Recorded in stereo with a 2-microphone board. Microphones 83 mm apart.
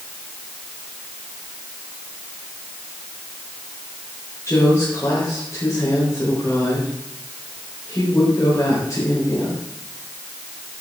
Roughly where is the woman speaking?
Left.